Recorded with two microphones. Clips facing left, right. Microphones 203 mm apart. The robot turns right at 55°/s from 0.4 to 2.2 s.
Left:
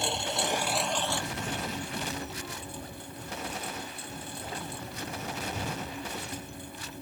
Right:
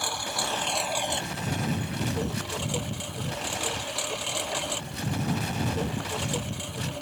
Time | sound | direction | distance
0.0 | a lawn mower | 160° left | ?